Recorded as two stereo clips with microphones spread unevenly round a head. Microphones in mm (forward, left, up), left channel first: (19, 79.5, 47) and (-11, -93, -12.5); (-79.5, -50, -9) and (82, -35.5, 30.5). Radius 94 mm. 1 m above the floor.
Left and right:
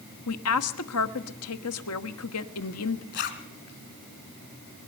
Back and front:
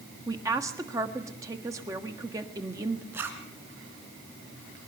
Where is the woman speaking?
80° left, 1.5 m.